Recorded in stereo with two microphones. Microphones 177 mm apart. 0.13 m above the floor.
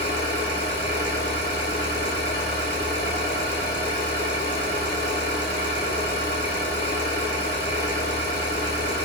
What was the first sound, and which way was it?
An engine running, 75° right (ahead or behind).